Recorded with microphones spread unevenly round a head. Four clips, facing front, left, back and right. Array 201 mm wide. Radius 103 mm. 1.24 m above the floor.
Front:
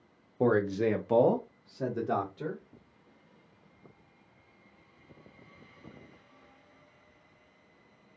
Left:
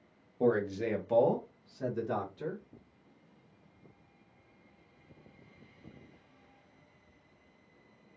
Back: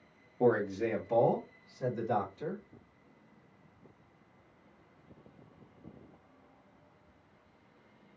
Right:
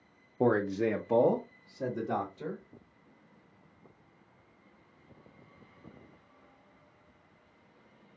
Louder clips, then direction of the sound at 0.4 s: Right 2 dB, front 2 dB; 60° right.